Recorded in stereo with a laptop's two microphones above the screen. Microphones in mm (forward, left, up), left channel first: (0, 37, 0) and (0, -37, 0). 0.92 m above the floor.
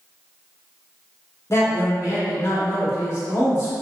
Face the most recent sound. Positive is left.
turn(degrees=40)  # may be behind; listen again after turning